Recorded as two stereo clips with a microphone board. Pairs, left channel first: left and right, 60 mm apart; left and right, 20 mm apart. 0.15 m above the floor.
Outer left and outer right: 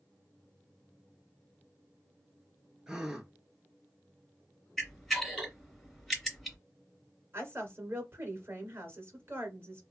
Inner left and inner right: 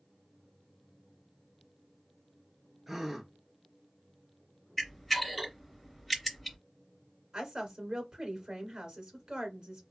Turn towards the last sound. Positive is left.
turn(degrees=-45)  # may be behind; listen again after turning